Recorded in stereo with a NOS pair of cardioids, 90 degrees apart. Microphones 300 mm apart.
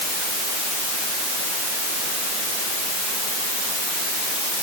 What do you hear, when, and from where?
Only background noise.